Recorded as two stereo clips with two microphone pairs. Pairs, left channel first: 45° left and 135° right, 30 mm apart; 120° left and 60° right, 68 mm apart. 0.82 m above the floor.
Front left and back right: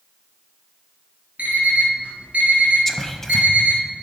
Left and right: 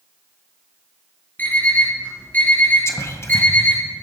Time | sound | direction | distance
1.4 | an alarm clock | straight behind | 3.5 m
2.9 | whispering | 120° left | 1.0 m